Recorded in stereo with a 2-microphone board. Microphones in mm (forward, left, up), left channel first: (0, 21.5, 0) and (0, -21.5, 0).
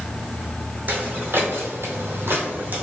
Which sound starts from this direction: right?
Footsteps, at 0.9 s.